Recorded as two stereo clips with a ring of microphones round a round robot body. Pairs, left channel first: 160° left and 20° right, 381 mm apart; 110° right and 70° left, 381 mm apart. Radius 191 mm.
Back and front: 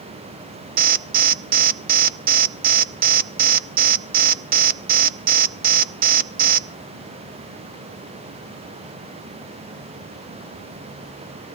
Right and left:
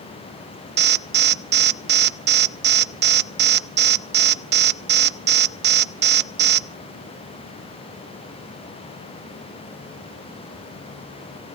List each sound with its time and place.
0.8 s an alarm: 25° left, 0.7 m